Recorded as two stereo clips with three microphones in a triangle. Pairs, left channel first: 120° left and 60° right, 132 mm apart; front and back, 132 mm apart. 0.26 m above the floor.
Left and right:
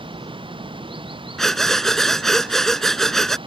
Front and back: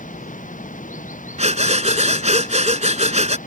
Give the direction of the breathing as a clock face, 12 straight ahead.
5 o'clock.